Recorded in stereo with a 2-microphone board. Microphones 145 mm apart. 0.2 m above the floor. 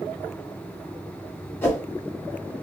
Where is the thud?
No thud in this recording.